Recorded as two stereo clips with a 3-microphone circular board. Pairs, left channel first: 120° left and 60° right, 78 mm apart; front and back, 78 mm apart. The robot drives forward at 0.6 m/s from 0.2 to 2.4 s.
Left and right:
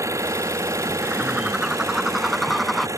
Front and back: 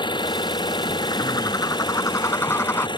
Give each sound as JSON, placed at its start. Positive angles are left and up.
{"t": 0.0, "sound": "an engine running", "azimuth_deg": -10}
{"t": 1.0, "sound": "a bird", "azimuth_deg": 15}